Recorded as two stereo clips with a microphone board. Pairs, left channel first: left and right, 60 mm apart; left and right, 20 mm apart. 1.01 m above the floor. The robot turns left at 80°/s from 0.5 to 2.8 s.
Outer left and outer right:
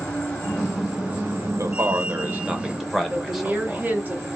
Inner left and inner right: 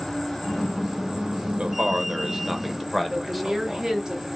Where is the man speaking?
80° right, 0.8 m; by 4.0 s 175° right, 0.8 m.